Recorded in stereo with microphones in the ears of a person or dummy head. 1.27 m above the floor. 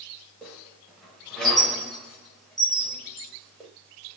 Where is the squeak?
Centre (ahead or behind), 0.9 m.